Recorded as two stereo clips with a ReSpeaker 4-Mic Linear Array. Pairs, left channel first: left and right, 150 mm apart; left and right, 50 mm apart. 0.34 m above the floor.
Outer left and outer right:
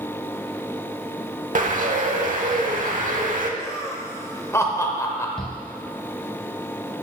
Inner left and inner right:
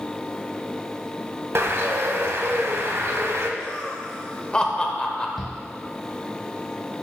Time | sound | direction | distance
1.6 | a bird | 60° right (ahead or behind) | 0.7 m
3.6 | laughter | 20° left (ahead or behind) | 0.8 m
5.4 | a shout | 5° left (ahead or behind) | 1.1 m